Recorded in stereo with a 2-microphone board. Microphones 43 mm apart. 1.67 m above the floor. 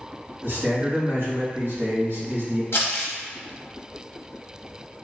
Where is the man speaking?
75° right (ahead or behind), 1.7 m.